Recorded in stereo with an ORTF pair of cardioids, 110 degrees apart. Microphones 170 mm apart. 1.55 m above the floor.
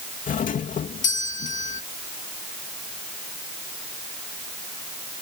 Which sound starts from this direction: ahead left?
A doorbell, at 0.3 s.